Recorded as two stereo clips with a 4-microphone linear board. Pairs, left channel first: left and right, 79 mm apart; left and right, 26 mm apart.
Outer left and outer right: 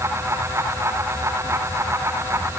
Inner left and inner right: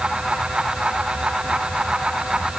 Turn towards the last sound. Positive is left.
No sound to turn to.